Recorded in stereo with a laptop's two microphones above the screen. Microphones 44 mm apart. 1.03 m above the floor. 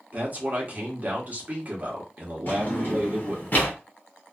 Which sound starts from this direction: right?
A man speaking, at 0.1 s.